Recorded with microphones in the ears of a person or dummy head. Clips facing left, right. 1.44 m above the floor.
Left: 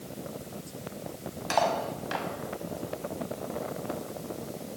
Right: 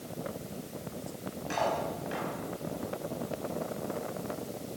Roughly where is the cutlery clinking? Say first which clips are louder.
Left 4 dB; left.